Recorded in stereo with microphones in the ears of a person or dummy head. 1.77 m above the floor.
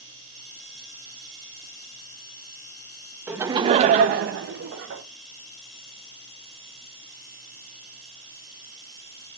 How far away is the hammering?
No hammering in this recording.